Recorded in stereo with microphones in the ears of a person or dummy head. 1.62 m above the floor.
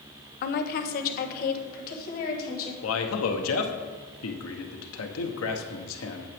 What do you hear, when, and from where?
0.4 s a woman speaking: 50° left (ahead or behind), 0.8 m
2.8 s a man speaking: 85° left, 1.0 m